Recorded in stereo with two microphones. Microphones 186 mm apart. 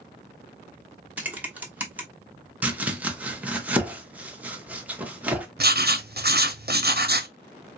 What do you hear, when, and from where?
1.2 s typing on a keyboard: 10° right (ahead or behind), 0.9 m
2.6 s chopping: 10° right (ahead or behind), 0.8 m
5.6 s writing: 60° right (ahead or behind), 0.7 m